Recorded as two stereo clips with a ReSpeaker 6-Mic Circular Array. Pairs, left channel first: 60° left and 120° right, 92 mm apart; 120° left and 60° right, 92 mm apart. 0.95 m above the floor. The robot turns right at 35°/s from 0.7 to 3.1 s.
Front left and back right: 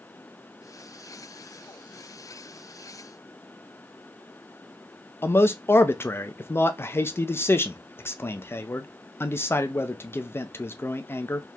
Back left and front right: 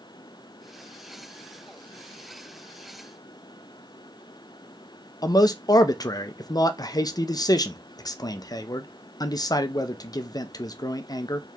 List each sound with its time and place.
5.2 s a man speaking: 110° left, 0.5 m